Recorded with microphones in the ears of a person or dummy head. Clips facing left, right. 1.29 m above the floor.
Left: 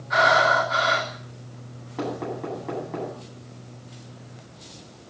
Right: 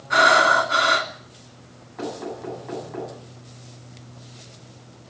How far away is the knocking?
About 10 m.